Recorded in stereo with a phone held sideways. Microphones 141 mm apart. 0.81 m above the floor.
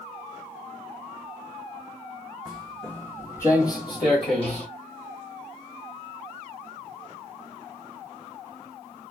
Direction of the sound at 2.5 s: Centre (ahead or behind).